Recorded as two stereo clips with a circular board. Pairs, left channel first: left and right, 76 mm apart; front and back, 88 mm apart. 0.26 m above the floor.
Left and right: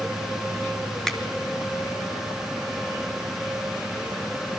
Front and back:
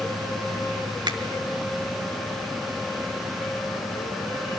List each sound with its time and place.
1.1 s a finger snap: 175° left, 2.5 m